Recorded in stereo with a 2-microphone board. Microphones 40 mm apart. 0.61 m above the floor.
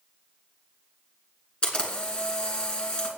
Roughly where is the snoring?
I don't hear snoring.